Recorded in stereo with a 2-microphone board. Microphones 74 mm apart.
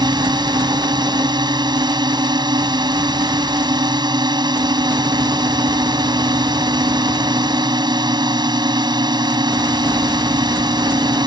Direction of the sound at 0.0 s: 75° right (ahead or behind).